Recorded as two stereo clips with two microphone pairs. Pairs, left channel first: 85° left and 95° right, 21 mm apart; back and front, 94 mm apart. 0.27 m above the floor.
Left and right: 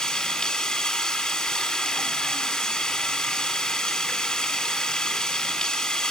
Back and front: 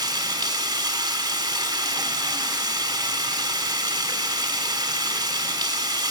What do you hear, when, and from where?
0.0 s running water: 45° left, 1.8 m